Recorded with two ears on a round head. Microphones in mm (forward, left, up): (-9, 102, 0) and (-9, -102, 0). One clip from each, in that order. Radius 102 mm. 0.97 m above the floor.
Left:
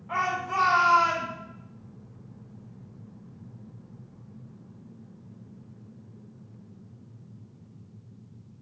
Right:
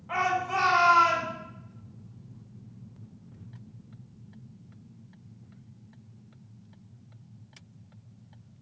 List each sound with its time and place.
0.1 s a shout: 10° right (ahead or behind), 3.5 m